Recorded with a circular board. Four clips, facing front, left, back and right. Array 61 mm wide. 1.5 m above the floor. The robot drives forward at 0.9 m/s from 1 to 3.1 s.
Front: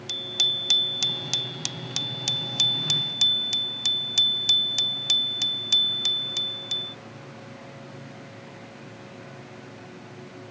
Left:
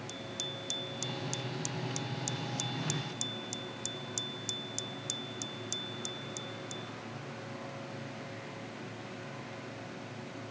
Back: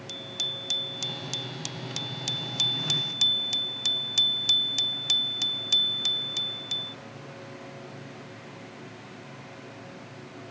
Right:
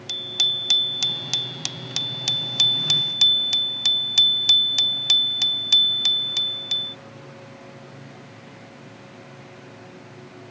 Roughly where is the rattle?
No rattle in this recording.